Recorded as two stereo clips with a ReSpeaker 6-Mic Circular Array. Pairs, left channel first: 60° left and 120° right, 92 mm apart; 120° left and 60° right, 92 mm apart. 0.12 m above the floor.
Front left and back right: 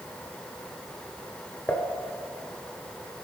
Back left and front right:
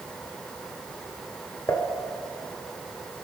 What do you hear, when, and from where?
1.7 s dishes clattering: 110° left, 1.2 m